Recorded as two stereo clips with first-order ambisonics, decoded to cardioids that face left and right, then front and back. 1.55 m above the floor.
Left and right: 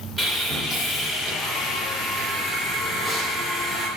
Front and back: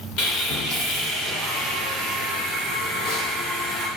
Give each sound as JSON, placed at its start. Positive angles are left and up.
{"t": 0.2, "sound": "sawing", "azimuth_deg": 0, "distance_m": 1.6}